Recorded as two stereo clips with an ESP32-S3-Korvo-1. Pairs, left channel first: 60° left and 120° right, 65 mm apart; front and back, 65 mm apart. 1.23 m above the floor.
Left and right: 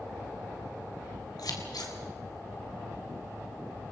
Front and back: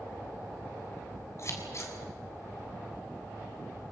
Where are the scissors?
45° left, 3.5 m.